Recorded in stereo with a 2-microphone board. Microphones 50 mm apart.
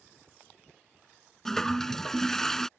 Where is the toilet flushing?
10° left (ahead or behind).